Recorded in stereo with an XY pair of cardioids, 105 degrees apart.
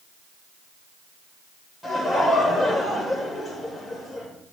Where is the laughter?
15° left, 5 m.